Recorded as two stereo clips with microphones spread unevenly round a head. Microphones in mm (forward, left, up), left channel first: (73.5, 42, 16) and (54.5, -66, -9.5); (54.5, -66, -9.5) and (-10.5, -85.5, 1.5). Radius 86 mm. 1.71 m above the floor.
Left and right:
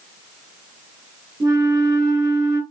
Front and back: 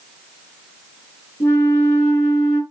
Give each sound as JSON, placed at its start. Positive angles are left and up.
{"t": 1.4, "sound": "a flute", "azimuth_deg": -40, "distance_m": 2.5}